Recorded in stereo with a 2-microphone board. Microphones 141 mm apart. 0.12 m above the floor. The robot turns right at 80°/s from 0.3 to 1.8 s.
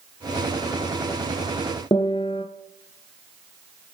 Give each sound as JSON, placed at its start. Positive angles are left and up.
{"t": 1.9, "sound": "a piano", "side_deg": 40, "distance_m": 1.3}